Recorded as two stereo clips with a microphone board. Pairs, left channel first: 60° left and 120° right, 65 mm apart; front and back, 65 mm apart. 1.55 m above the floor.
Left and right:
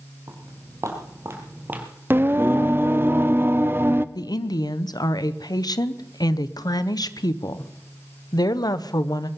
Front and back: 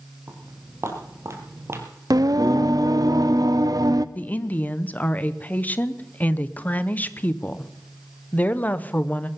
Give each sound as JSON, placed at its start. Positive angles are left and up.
{"t": 0.3, "sound": "footsteps", "azimuth_deg": -140, "distance_m": 3.5}
{"t": 2.1, "sound": "singing", "azimuth_deg": -175, "distance_m": 0.5}
{"t": 4.2, "sound": "a woman speaking", "azimuth_deg": 65, "distance_m": 0.8}